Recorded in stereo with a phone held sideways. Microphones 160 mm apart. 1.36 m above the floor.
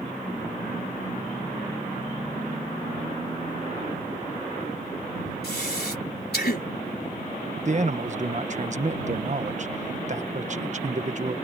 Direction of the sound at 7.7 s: 50° right (ahead or behind).